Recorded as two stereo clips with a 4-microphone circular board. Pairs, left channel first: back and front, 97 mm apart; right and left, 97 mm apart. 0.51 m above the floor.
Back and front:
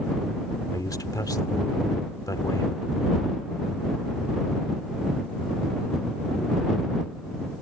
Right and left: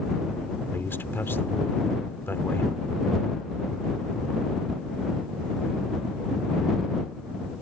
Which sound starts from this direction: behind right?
A man speaking, at 0.7 s.